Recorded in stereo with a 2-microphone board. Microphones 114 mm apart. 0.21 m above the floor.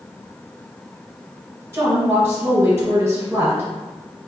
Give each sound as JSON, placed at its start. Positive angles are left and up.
{"t": 1.7, "sound": "a woman speaking", "side_deg": -25, "distance_m": 1.4}